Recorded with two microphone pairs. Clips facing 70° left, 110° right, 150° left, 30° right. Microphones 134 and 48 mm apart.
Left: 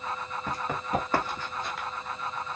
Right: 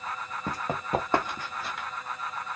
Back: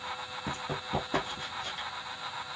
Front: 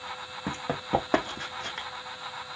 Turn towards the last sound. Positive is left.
turn(degrees=-15)